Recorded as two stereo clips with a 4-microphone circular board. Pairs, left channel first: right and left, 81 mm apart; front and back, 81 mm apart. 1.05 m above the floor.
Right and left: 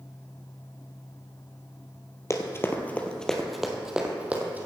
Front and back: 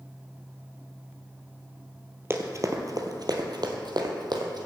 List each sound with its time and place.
2.3 s running footsteps: 130° right, 1.7 m; by 4.7 s 155° left, 2.5 m